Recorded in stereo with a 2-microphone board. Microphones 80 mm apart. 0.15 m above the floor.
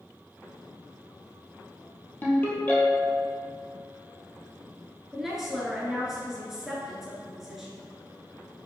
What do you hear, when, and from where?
2.2 s a ringtone: 25° left (ahead or behind), 1.9 m
5.1 s a woman speaking: 5° right (ahead or behind), 2 m